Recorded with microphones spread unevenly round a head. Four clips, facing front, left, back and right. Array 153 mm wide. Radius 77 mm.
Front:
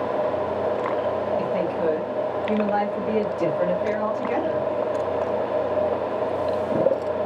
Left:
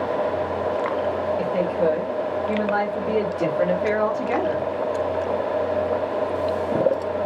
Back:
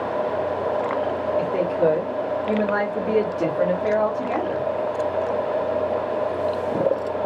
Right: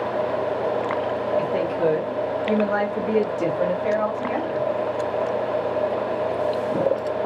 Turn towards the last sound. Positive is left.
turn(degrees=110)